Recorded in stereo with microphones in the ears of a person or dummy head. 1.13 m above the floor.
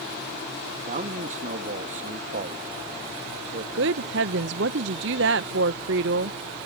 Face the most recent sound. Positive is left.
turn(degrees=-65)  # may be behind; listen again after turning